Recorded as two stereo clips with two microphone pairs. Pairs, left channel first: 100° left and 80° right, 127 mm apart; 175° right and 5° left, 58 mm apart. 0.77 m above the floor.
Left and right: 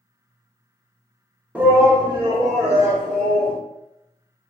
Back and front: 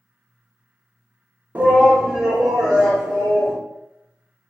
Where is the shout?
10° right, 0.7 m; by 3.6 s 90° right, 1.5 m.